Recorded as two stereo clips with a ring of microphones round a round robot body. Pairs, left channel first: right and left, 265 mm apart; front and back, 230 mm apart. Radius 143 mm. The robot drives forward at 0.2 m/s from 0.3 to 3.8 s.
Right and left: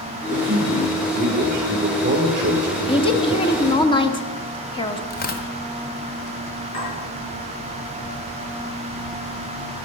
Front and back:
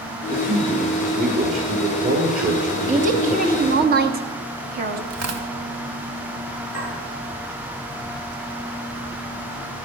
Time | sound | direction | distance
0.3 | a man speaking | 145° left | 1.9 m
2.9 | a woman speaking | 150° right | 1.0 m
5.1 | tearing paper | 150° right | 1.2 m
6.7 | a clink | 140° right | 6.5 m